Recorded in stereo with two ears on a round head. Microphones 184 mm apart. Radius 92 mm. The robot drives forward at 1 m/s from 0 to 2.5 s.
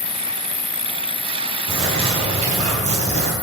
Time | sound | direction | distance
0.0 | an insect | 35° left (ahead or behind) | 2.5 m
1.7 | a bird | 30° right (ahead or behind) | 4 m